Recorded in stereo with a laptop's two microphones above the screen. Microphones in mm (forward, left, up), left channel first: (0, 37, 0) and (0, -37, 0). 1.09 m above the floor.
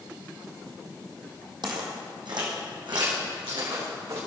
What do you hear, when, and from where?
1.6 s footsteps: 65° right (ahead or behind), 2.5 m; by 4.2 s 75° right (ahead or behind), 6.5 m